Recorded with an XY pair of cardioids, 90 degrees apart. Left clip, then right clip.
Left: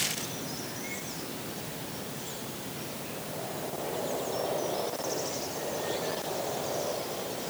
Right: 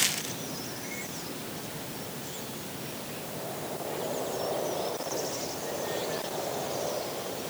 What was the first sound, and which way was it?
Only background noise.